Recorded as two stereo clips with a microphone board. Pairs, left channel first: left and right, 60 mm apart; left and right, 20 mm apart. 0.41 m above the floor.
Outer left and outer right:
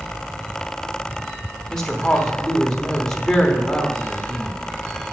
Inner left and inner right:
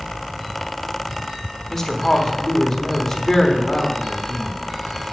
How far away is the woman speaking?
About 0.9 m.